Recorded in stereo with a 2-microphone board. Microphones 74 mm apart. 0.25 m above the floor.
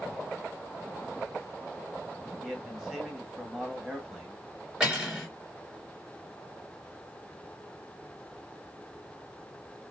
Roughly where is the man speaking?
Centre.